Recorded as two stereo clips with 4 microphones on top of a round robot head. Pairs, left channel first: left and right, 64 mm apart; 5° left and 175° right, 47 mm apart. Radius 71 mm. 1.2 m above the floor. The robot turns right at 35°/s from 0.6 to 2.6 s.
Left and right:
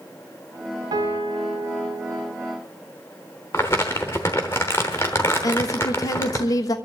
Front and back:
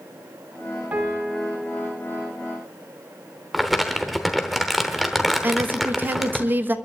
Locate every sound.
0.9 s a piano: 115° right, 1.4 m; by 2.4 s 65° right, 1.4 m
3.5 s crumpling: 90° left, 0.9 m
5.4 s a woman speaking: 130° left, 1.1 m